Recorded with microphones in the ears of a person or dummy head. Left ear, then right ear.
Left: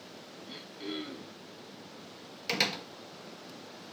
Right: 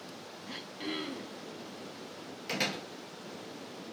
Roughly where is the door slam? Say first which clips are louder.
Left 3 dB; left.